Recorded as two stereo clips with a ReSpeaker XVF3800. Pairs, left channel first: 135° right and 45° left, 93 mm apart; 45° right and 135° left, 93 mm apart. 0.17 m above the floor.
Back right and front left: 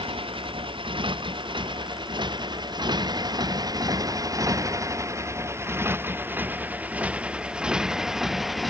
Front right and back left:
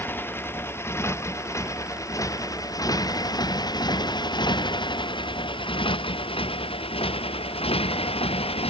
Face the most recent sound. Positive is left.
turn(degrees=-45)